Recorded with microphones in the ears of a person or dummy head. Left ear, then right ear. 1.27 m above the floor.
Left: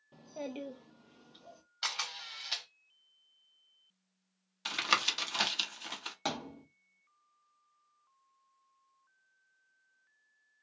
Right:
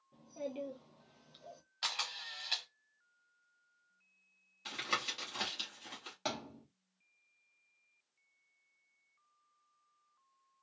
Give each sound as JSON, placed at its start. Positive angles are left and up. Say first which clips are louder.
{"t": 0.1, "sound": "a child speaking", "louder": "left 1 dB", "side_deg": 50, "distance_m": 0.5}
{"t": 1.8, "sound": "a camera shutter", "louder": "left 1 dB", "side_deg": -15, "distance_m": 0.7}
{"t": 4.7, "sound": "tapping", "louder": "left 7 dB", "side_deg": 30, "distance_m": 0.8}
{"t": 6.2, "sound": "a thud", "louder": "left 2 dB", "side_deg": 10, "distance_m": 0.9}